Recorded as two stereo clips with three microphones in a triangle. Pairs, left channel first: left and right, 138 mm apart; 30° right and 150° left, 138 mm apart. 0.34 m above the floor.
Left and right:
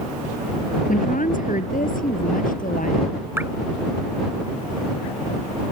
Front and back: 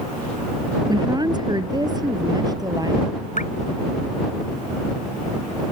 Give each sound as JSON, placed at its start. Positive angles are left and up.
{"t": 0.9, "sound": "a woman speaking", "azimuth_deg": 90}
{"t": 3.4, "sound": "dripping", "azimuth_deg": -15}